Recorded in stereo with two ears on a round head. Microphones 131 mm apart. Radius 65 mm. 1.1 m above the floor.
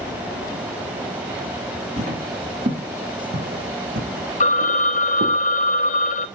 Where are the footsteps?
50° right (ahead or behind), 4 m; by 5.4 s 65° right (ahead or behind), 2.5 m.